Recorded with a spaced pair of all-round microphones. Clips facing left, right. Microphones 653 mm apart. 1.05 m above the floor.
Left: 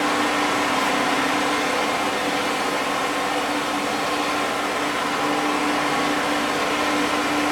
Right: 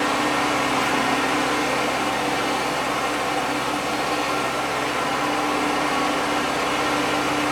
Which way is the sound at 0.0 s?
45° left (ahead or behind).